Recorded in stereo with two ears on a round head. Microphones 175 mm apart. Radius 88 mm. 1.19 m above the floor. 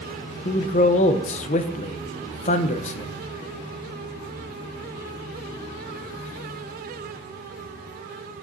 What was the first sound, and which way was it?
A man speaking, 35° left (ahead or behind).